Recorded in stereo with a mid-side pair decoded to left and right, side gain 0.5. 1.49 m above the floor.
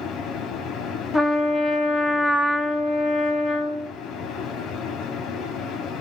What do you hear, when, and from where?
0.0 s a fan: 70° left, 0.8 m
1.1 s a trumpet: 20° left, 0.8 m